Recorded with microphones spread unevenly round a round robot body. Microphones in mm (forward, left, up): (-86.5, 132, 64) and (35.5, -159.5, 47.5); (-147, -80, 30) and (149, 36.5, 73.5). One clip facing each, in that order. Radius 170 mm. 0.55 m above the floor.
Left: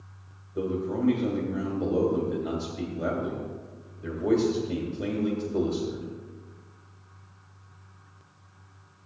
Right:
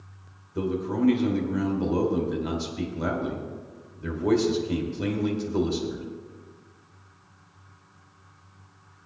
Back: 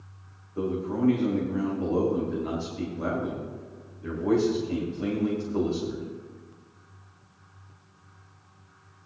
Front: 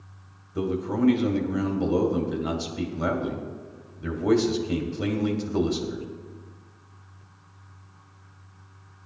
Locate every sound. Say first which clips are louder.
0.6 s a man speaking: right 2 dB, front 2 dB; straight ahead, 2 m